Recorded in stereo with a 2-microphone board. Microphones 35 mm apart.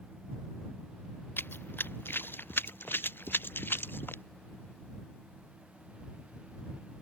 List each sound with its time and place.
1.4 s running footsteps: 80° left; by 4.2 s 85° left